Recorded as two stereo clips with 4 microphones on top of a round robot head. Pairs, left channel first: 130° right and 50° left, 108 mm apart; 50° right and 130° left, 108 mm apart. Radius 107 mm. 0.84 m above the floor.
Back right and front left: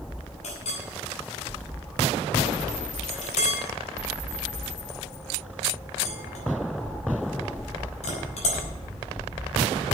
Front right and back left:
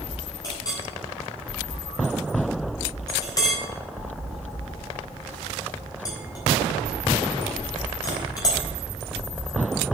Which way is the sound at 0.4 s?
110° right.